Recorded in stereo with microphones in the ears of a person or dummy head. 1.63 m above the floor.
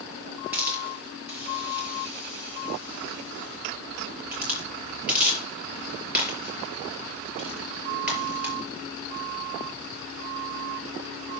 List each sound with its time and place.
0.5 s a hiss: 10° right (ahead or behind), 5 m